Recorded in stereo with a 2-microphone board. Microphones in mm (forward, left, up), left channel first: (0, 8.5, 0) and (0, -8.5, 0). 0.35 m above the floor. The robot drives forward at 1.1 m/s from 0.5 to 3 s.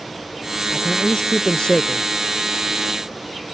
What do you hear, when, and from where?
0.7 s a man speaking: 75° left (ahead or behind); by 2.0 s 70° left (ahead or behind)